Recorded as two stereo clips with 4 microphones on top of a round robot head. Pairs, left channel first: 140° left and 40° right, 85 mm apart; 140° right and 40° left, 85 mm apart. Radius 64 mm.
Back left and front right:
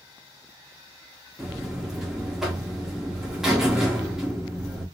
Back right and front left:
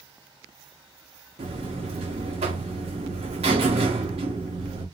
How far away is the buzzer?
About 1.5 m.